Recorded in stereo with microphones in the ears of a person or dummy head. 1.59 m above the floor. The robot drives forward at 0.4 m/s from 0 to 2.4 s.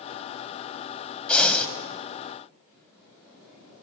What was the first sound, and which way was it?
Breathing, 10° left (ahead or behind).